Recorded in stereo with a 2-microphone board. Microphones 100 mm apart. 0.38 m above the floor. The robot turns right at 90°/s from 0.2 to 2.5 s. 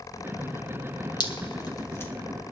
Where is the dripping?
50° left (ahead or behind), 2 m; by 2.1 s 20° left (ahead or behind), 2 m.